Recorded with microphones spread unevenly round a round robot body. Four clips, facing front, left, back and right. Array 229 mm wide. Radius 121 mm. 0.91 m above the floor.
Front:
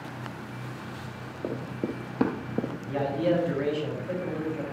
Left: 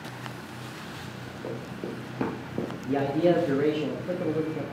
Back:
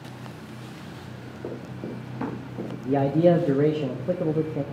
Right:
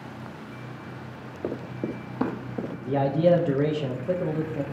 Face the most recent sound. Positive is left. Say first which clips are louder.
# right 2 dB, back 8 dB
turn(degrees=-170)